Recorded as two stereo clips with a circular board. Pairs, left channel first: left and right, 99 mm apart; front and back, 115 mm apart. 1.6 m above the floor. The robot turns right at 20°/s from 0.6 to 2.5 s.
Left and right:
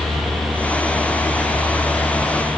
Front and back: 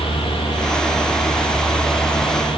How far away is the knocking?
I don't hear knocking.